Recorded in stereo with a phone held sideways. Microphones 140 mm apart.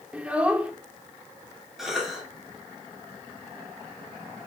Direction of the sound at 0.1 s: 10° right (ahead or behind).